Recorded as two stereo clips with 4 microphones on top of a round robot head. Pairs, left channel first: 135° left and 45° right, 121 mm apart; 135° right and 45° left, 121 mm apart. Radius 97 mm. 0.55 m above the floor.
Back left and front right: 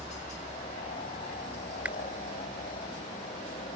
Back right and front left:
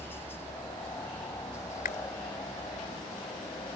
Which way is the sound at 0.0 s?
150° left.